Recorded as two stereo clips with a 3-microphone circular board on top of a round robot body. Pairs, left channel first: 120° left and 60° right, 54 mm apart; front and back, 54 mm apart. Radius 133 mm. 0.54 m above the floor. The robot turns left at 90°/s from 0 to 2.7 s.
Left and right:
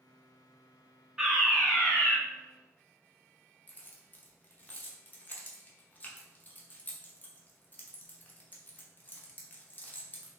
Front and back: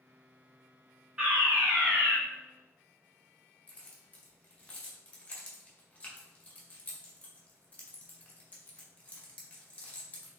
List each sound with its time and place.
1.2 s a fire alarm: 130° right, 1.6 m; by 2.2 s 140° left, 1.6 m
3.7 s keys jangling: 60° left, 1.0 m